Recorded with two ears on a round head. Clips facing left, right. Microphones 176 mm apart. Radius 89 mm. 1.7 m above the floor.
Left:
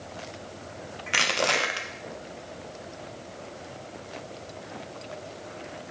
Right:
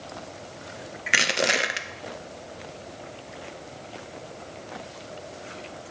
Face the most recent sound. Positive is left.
turn(degrees=-20)  # may be behind; listen again after turning